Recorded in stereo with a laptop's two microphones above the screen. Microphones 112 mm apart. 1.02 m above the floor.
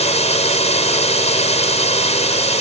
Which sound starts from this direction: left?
A drone, at 0.0 s.